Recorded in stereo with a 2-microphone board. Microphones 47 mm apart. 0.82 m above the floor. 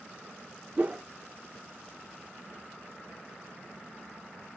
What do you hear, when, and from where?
0.8 s a whoosh: 30° right (ahead or behind), 0.8 m